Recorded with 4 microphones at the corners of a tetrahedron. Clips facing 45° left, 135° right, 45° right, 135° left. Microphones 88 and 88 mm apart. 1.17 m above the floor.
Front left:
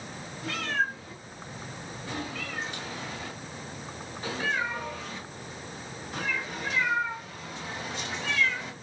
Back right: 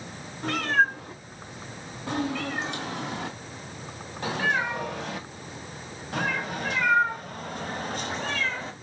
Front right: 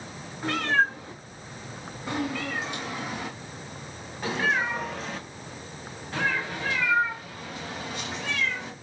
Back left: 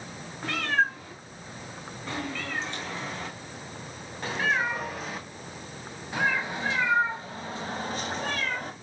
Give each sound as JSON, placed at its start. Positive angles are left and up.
{"t": 0.4, "sound": "a cat meowing", "azimuth_deg": -115, "distance_m": 4.5}